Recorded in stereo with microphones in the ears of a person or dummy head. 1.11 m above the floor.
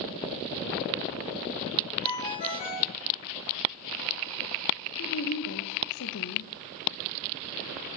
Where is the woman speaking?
70° left (ahead or behind), 0.7 m.